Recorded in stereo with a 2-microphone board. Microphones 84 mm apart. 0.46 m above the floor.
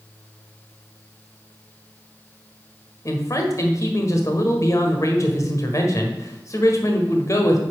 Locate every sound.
3.0 s a man speaking: 40° left (ahead or behind), 1.4 m